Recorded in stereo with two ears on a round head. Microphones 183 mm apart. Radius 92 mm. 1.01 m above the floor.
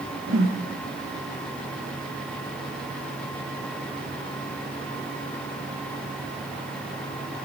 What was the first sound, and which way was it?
A whoosh, 65° right (ahead or behind).